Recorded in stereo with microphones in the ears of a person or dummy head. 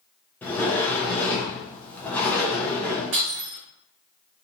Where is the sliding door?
10° left (ahead or behind), 0.6 m.